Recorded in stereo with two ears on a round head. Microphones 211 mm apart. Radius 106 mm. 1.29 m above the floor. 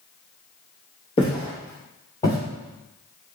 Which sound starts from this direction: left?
Footsteps, at 1.2 s.